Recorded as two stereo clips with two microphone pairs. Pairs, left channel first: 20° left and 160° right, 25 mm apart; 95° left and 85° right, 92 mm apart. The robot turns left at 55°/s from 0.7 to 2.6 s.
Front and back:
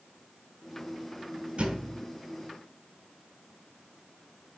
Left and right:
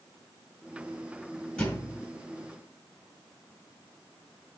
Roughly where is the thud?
Behind.